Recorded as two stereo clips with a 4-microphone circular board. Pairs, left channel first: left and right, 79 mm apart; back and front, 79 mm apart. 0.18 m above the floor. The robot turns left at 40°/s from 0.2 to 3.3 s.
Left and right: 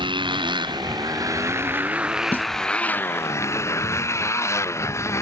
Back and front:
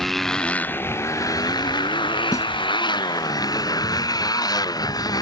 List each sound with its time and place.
0.0 s a motorcycle: 90° right; by 5.2 s 145° left
2.3 s a snare drum: 150° left; by 2.5 s 145° left